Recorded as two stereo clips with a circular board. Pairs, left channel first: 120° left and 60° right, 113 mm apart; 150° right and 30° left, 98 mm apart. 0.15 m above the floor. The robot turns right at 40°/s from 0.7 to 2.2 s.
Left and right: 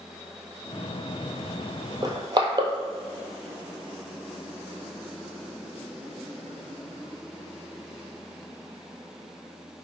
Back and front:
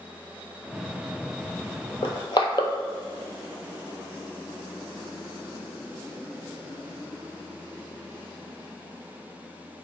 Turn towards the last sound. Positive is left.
turn(degrees=-110)